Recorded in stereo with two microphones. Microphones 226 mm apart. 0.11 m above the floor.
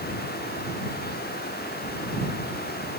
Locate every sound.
Only background noise.